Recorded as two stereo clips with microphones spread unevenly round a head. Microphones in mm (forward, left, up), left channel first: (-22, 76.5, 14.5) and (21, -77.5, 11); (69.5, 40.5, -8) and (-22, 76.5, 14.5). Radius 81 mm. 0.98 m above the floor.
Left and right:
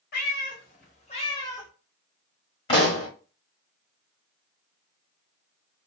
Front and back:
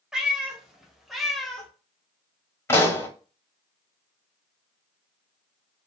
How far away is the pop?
About 1.4 m.